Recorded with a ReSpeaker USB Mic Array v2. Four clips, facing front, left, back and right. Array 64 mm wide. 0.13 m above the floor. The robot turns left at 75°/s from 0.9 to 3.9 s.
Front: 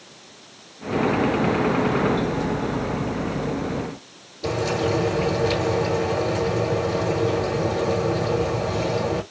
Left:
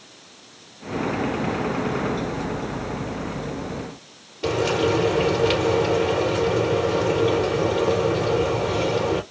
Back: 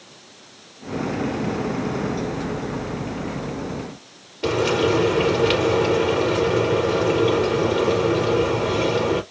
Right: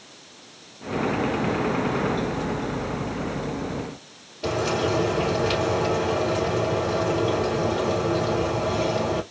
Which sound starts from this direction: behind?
Frying, at 4.4 s.